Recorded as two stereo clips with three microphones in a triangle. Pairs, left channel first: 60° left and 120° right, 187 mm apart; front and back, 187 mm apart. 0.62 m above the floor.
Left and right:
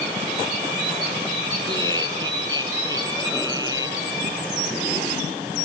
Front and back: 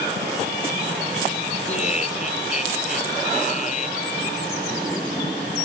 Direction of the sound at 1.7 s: 55° right.